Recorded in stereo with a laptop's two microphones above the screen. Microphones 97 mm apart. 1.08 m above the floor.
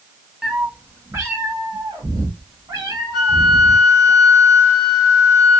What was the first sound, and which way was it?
A cat meowing, 5° right (ahead or behind).